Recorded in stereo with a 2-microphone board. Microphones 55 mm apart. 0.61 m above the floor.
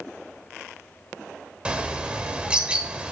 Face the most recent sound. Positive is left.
turn(degrees=-15)  # may be behind; listen again after turning